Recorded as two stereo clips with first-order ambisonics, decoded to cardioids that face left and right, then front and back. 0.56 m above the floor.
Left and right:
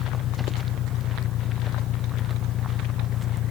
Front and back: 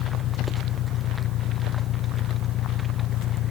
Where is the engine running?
45° left.